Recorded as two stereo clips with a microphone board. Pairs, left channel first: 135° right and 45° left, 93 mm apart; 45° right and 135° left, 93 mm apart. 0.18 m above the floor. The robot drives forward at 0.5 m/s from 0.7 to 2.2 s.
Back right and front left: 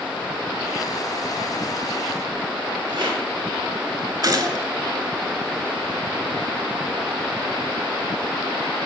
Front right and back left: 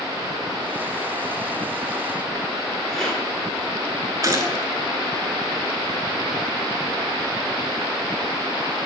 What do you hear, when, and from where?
2.9 s a rattle: 40° left, 3 m
4.2 s a gunshot: 85° left, 0.8 m